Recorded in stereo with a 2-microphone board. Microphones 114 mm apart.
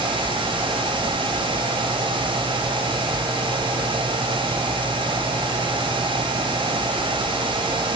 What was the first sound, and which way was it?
Only background noise.